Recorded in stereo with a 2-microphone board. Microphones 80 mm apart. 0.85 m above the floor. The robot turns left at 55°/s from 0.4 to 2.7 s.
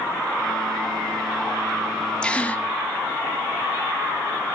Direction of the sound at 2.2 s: 10° left (ahead or behind).